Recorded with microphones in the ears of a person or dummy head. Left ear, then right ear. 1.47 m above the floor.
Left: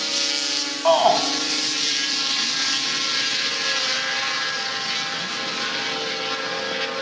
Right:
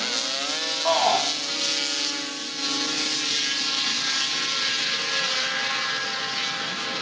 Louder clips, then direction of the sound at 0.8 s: Left 5 dB; 15° left (ahead or behind).